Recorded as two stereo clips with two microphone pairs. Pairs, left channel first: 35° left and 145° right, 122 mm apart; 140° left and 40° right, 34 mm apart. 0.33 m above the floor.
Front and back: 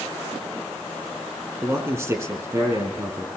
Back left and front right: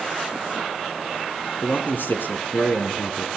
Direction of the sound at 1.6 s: 150° left.